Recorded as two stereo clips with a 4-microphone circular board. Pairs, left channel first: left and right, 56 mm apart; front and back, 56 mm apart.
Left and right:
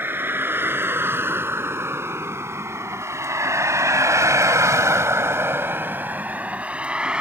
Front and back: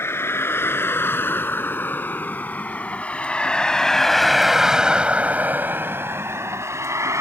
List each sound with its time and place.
0.0 s a vehicle: 40° right; by 7.2 s 160° right